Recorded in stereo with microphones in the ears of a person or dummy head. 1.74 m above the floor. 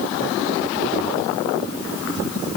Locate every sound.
Only background noise.